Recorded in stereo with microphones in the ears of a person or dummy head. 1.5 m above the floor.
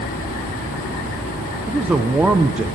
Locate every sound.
1.7 s a man speaking: 10° right (ahead or behind), 0.7 m